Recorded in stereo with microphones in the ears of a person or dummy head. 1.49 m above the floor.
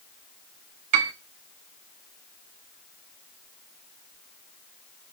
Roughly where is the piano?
Right.